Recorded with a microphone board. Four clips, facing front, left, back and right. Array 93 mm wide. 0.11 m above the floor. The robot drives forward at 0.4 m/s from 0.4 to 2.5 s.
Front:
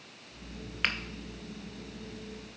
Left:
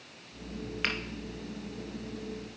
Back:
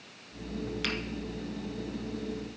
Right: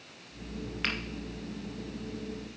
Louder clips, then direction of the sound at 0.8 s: Left 1 dB, front 4 dB; 5° left.